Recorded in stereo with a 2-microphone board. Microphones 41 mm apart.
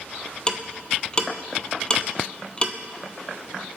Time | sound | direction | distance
0.5 | ticking | 20° left (ahead or behind) | 0.9 m